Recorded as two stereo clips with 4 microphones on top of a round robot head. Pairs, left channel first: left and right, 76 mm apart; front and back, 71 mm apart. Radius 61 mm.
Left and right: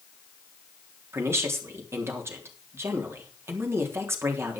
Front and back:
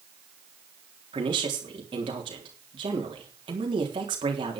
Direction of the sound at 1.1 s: 145° right.